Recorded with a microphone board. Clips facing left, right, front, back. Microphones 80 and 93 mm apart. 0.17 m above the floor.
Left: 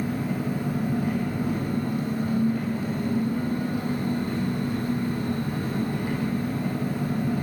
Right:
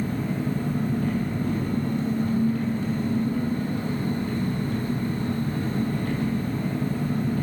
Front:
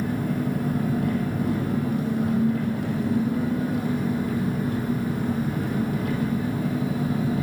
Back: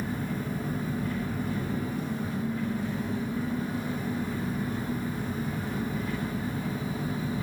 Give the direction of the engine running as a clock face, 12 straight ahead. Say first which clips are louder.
Even, front 7 dB; 12 o'clock.